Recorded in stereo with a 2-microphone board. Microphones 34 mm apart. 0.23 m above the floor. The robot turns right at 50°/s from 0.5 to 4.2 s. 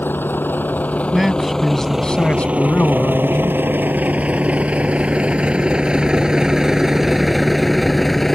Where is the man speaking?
15° right; by 3.6 s 105° left.